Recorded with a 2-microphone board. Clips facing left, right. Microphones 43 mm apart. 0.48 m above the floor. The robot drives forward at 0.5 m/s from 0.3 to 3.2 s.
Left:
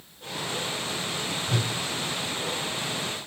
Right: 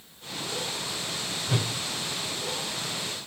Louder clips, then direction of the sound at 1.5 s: Right 1 dB; 20° right (ahead or behind).